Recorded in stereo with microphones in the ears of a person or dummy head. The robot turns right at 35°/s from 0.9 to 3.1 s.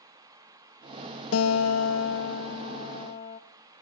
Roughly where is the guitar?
Left.